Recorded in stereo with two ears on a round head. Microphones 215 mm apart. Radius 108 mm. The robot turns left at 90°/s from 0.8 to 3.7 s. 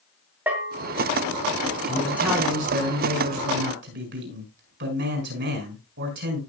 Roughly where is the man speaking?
Ahead left.